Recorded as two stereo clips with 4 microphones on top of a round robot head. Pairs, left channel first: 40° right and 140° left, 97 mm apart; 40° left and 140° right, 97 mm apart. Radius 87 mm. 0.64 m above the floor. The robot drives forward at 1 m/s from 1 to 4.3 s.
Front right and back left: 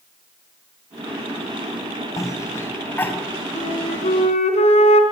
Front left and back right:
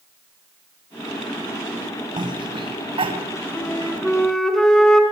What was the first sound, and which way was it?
A cough, 100° right.